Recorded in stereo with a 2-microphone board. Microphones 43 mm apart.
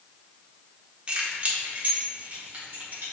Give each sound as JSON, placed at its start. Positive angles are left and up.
{"t": 1.1, "sound": "keys jangling", "side_deg": -25, "distance_m": 1.5}